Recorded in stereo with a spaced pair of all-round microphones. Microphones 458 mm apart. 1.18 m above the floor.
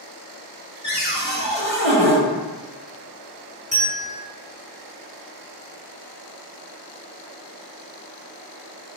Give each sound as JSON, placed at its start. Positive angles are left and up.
{"t": 0.8, "sound": "a cupboard door", "side_deg": -15, "distance_m": 0.6}
{"t": 3.7, "sound": "a bell", "side_deg": -50, "distance_m": 1.4}